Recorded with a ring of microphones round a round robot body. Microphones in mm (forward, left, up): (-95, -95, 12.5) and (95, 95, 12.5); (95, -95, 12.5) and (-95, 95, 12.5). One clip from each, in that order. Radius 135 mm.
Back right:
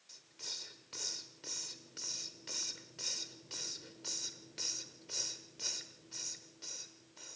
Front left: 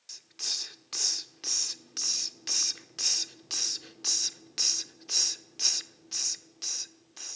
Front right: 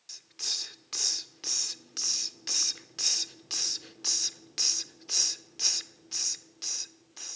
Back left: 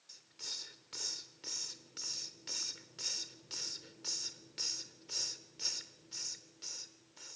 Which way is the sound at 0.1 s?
10° left.